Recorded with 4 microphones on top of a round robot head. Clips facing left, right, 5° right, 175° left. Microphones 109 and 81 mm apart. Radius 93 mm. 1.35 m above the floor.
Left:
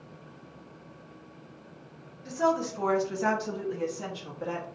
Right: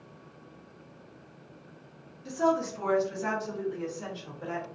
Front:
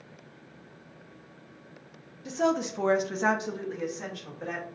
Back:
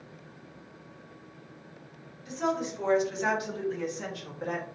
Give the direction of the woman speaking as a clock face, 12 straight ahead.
12 o'clock.